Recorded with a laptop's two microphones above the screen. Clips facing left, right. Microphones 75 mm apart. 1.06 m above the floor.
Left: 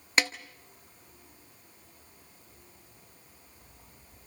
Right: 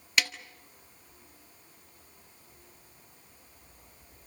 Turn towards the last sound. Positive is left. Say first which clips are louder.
# left 2 dB
turn(degrees=30)  # may be behind; listen again after turning